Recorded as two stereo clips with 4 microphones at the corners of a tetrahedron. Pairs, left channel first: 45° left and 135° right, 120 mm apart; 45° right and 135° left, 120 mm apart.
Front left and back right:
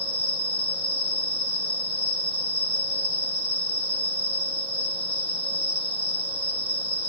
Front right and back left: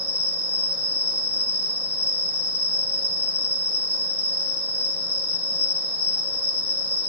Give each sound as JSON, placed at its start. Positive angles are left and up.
{"t": 0.0, "sound": "an insect", "azimuth_deg": -155, "distance_m": 2.0}